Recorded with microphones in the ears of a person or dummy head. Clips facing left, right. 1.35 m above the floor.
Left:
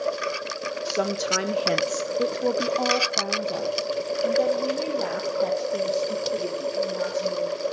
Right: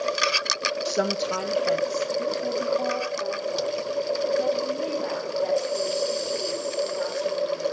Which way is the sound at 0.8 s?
15° right (ahead or behind).